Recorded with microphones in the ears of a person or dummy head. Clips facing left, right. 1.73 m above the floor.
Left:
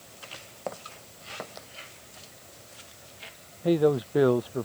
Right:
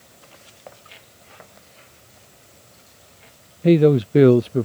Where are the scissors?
I don't hear scissors.